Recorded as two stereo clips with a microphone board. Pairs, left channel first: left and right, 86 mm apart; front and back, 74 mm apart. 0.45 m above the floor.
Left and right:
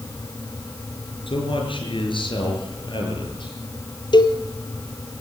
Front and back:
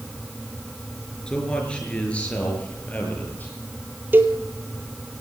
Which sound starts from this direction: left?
A man speaking, at 1.3 s.